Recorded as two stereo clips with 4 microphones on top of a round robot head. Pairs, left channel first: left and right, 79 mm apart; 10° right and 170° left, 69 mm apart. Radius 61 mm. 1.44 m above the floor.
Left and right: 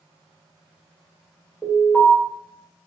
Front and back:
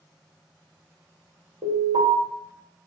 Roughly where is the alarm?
Behind.